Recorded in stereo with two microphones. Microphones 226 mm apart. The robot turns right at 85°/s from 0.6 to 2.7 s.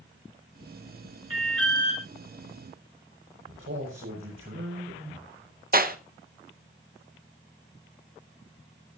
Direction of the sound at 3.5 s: 65° right (ahead or behind).